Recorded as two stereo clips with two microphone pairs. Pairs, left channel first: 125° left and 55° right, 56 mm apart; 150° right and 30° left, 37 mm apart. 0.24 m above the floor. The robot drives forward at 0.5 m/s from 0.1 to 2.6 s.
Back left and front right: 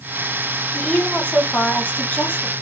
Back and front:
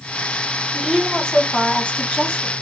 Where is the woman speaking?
160° left, 1.3 m; by 2.5 s 170° left, 1.9 m.